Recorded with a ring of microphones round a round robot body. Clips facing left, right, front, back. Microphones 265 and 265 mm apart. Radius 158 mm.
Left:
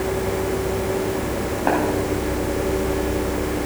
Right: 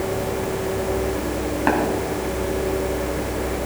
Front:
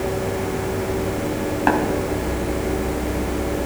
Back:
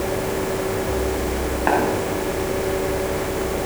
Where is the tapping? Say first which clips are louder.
Even, front 1 dB; 30° right, 3 m.